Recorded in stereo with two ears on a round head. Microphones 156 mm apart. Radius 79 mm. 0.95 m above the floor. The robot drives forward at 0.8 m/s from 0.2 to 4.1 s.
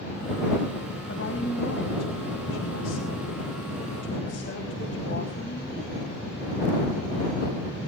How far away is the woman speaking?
About 4.5 m.